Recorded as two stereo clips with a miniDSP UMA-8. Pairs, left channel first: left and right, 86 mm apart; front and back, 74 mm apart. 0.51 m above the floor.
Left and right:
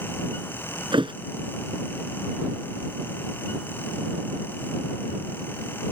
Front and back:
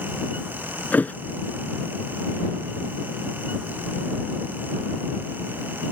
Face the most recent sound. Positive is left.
turn(degrees=-70)